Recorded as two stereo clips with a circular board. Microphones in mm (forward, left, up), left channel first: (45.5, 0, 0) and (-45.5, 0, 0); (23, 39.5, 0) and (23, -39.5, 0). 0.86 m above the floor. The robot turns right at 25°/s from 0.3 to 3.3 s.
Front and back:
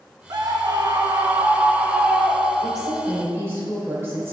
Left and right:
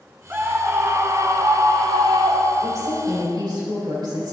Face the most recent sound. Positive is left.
turn(degrees=-120)